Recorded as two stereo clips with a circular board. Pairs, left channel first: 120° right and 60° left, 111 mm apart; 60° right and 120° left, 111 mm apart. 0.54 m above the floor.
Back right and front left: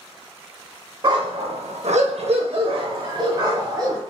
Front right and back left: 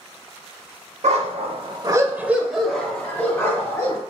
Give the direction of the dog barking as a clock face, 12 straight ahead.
8 o'clock.